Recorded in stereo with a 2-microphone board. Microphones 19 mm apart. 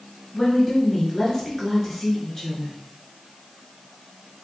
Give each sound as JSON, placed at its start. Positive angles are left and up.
{"t": 0.3, "sound": "a woman speaking", "side_deg": 20, "distance_m": 1.4}